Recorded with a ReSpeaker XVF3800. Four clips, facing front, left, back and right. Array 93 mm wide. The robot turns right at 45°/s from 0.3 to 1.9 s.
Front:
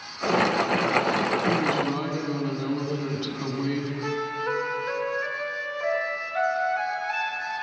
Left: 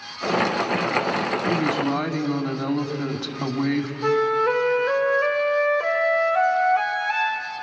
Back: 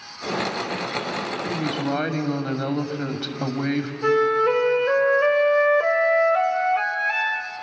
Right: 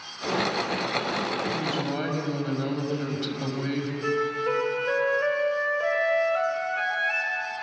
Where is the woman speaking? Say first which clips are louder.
Left 6 dB, front 1 dB; 145° left, 2.5 m; by 3.9 s 165° left, 2.5 m.